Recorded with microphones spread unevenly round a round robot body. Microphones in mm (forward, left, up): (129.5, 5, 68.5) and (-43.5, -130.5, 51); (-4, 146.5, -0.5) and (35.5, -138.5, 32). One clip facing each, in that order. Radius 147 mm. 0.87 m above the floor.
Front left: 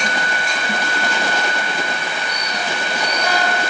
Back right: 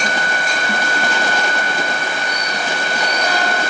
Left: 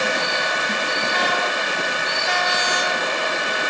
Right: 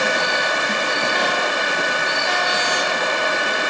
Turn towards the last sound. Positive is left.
No sound to turn to.